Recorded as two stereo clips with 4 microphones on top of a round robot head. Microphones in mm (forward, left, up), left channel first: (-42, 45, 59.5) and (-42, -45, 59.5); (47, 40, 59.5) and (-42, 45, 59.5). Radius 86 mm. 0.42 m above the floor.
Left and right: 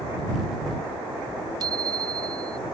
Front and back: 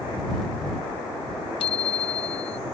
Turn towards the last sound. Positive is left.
turn(degrees=-35)